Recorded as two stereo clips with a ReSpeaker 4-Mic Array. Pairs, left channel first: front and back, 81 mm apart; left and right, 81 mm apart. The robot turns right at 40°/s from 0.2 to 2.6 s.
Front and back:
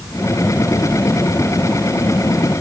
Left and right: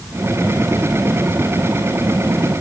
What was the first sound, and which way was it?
Only background noise.